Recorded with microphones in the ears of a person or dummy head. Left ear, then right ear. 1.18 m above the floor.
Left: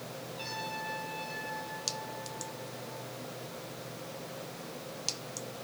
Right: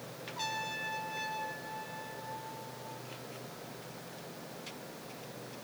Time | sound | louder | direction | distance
0.4 | a trumpet | right 2 dB | 65° right (ahead or behind) | 6 m